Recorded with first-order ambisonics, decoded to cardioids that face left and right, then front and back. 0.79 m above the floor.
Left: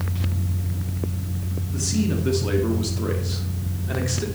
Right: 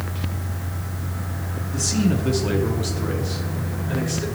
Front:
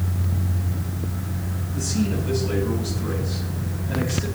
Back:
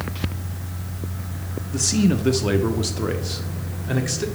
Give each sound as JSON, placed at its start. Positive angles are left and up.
{"t": 1.7, "sound": "a man speaking", "azimuth_deg": -165, "distance_m": 1.5}